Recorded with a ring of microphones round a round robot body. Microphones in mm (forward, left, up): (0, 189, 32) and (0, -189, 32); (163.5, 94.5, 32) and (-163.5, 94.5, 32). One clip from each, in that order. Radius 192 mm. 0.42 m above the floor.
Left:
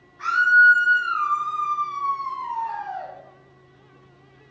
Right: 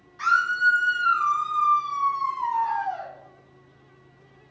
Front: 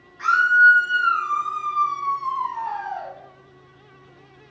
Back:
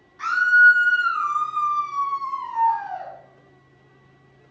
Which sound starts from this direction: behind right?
A scream, at 0.2 s.